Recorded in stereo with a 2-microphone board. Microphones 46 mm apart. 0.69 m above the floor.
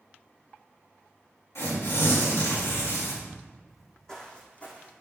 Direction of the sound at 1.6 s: 75° left (ahead or behind).